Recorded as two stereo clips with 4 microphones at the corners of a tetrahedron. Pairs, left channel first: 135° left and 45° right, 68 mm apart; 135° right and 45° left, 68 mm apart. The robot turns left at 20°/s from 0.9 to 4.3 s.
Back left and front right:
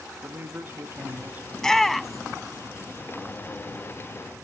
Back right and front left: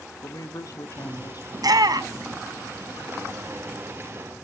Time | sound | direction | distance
0.2 | a man speaking | 100° right | 1.2 m
1.5 | a shout | 55° left | 0.7 m